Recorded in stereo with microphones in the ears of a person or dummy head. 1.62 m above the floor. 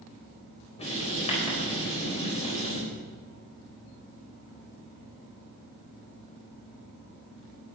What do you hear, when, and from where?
0.8 s writing: 30° left (ahead or behind), 4 m